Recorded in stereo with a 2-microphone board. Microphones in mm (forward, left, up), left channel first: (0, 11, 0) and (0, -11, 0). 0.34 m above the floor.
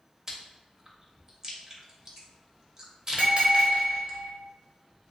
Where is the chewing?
20° right (ahead or behind), 0.5 m.